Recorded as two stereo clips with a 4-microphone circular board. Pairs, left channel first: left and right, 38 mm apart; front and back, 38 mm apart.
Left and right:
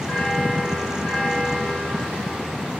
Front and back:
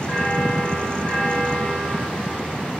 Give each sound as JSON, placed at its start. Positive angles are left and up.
{"t": 0.1, "sound": "a bell", "azimuth_deg": 25, "distance_m": 5.0}